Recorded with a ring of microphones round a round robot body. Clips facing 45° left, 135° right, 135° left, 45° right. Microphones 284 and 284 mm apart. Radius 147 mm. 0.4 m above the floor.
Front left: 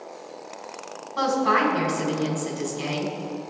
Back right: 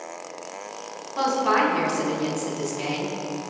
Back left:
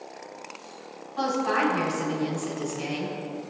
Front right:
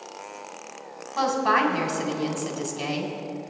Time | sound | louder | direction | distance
1.2 | a woman speaking | even, front right 1 dB | 35° right | 3 m